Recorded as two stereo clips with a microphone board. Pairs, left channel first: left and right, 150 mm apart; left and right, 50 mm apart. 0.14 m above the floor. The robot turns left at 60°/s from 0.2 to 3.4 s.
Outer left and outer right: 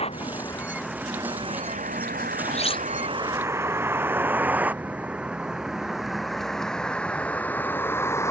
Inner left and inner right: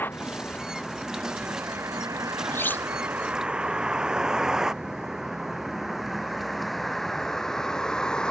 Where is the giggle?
No giggle in this recording.